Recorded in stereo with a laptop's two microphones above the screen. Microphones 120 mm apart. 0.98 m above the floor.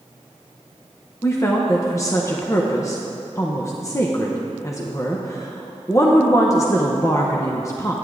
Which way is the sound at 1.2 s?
25° left (ahead or behind).